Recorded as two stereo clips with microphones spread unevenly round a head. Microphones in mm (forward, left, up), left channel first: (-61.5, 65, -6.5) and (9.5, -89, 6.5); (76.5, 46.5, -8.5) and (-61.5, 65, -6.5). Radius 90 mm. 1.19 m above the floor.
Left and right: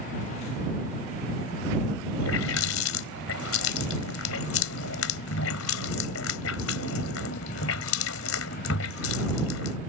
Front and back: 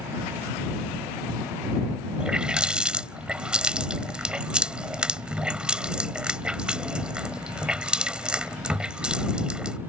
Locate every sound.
2.2 s a running tap: 90° left